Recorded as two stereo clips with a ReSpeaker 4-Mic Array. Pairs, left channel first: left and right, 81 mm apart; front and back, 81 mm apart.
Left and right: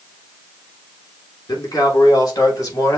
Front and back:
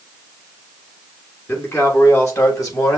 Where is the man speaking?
55° left, 2.5 m; by 3.0 s 45° left, 2 m.